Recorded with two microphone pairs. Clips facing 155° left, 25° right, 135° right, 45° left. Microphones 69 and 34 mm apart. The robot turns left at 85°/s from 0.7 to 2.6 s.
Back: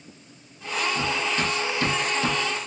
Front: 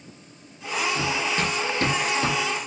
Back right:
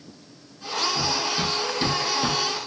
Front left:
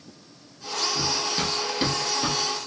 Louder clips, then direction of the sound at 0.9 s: Even, back right 2 dB; 50° left.